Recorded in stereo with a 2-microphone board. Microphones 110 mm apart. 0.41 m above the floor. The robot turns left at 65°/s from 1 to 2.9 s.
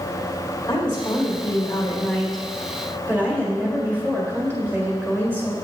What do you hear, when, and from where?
0.7 s a woman speaking: 90° left, 1.8 m; by 5.5 s 35° right, 1.8 m